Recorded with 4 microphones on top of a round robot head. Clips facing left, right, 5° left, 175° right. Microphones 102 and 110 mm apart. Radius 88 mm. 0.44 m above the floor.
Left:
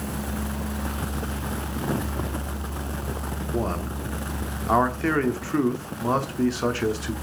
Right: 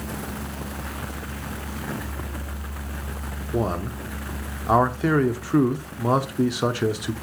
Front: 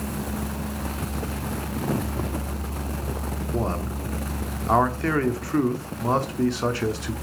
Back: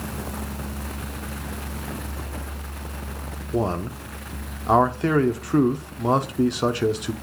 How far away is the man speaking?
About 0.8 m.